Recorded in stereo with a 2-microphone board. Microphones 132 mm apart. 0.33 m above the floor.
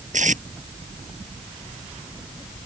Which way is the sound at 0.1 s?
70° right (ahead or behind).